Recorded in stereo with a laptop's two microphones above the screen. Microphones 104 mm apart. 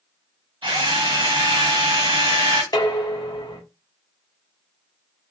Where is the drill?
45° right (ahead or behind), 1.1 m.